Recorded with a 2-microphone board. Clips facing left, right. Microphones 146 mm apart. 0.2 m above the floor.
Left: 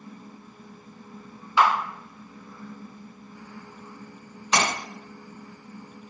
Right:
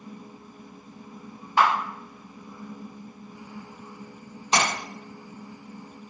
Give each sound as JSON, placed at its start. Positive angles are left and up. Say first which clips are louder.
{"t": 1.6, "sound": "a camera shutter", "louder": "left 1 dB", "side_deg": -55, "distance_m": 1.3}
{"t": 4.5, "sound": "a splash", "louder": "even", "side_deg": -30, "distance_m": 1.5}